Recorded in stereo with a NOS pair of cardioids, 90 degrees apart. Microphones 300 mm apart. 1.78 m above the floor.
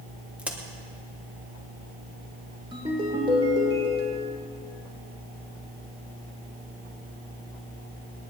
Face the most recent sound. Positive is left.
turn(degrees=-20)